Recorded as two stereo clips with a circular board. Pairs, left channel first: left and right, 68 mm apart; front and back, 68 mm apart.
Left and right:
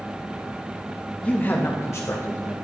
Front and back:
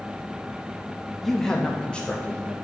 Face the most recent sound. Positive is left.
turn(degrees=65)